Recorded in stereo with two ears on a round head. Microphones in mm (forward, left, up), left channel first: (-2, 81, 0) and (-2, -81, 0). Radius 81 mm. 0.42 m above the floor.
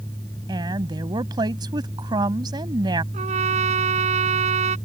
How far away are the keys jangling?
No keys jangling in this recording.